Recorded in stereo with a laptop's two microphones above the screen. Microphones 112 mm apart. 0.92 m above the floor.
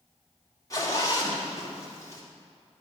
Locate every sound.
0.7 s a zipper: 30° left (ahead or behind), 3 m